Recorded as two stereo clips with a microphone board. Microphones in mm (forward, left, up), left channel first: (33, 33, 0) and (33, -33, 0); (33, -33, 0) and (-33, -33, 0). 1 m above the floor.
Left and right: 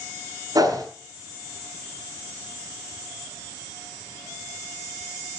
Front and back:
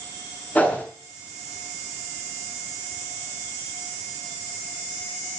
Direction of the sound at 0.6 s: 65° right.